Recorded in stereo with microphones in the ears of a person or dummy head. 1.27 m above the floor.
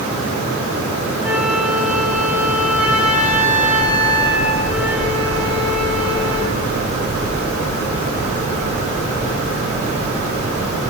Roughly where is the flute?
Centre.